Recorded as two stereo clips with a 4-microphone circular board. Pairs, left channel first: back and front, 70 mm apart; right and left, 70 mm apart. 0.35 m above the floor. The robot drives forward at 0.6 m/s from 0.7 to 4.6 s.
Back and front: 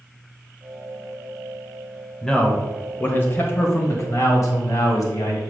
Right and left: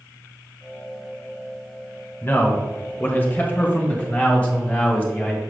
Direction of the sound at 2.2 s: 105° right.